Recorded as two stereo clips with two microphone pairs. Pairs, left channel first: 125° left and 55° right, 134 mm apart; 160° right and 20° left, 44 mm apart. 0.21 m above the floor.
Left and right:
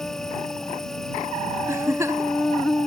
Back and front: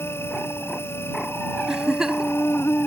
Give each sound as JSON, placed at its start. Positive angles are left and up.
{"t": 0.0, "sound": "an insect", "azimuth_deg": -150}
{"t": 1.7, "sound": "a giggle", "azimuth_deg": -35}